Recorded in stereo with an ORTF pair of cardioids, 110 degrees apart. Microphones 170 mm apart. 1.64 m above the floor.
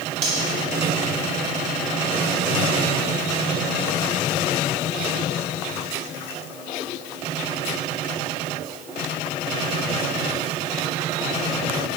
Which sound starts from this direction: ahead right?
Cutlery clinking, at 0.2 s.